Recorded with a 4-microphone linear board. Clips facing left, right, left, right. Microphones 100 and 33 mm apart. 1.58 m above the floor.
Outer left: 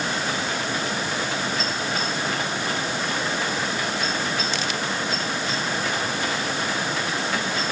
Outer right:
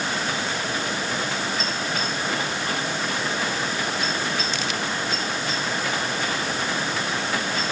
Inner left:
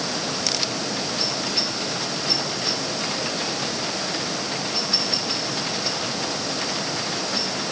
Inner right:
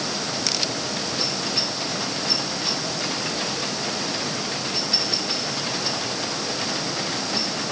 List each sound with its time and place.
Only background noise.